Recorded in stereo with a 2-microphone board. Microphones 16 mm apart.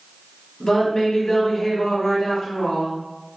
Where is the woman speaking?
25° left (ahead or behind), 1.1 m.